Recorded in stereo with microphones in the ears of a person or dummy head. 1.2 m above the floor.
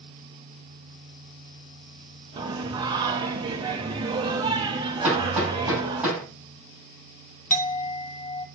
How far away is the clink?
About 0.6 m.